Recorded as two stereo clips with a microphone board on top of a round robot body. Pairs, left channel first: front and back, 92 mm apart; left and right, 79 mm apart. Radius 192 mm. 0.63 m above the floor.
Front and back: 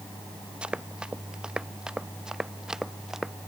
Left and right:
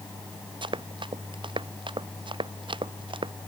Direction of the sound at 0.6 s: 100° right.